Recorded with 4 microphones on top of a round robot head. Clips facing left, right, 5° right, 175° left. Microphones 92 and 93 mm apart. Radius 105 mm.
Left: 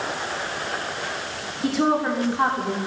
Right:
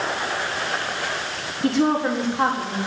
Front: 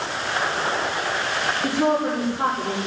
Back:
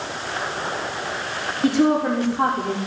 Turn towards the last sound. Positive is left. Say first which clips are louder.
# right 1 dB, back 4 dB
turn(degrees=175)